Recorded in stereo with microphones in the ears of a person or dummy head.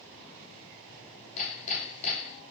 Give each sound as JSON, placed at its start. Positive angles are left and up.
{"t": 1.4, "sound": "hammering", "side_deg": 40, "distance_m": 1.7}